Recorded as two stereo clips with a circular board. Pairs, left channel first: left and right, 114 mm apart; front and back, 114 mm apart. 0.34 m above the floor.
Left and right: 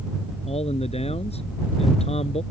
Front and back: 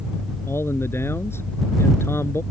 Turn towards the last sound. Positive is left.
turn(degrees=65)